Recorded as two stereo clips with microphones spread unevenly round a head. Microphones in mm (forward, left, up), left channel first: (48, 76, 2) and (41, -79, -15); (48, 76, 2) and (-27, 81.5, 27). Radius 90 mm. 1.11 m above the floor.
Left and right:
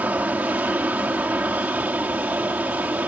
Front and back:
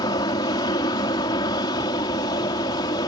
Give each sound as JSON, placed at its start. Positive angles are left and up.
{"t": 0.0, "sound": "an aircraft", "azimuth_deg": -15}